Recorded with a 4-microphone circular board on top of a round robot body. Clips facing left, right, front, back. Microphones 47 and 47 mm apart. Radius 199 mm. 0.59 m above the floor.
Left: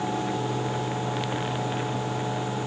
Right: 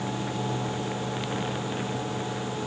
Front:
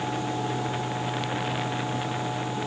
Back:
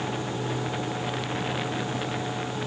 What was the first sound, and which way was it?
Only background noise.